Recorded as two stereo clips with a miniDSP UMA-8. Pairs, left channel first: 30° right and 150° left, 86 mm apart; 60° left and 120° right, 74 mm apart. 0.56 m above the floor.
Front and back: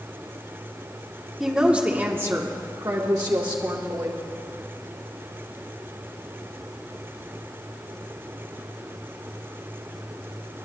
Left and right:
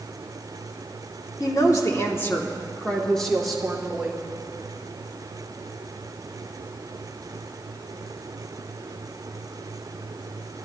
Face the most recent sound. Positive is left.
turn(degrees=165)